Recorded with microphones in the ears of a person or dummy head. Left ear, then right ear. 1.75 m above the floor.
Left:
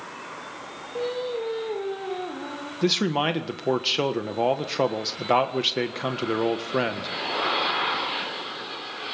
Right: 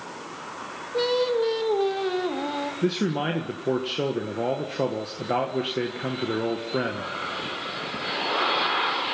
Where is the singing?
85° right, 3 m.